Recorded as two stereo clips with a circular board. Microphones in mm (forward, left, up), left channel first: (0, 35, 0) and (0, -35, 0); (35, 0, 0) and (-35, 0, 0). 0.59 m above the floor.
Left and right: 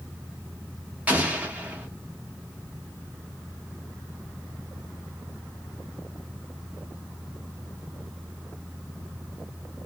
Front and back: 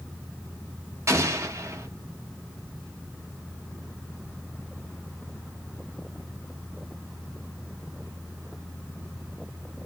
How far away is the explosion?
About 1.0 m.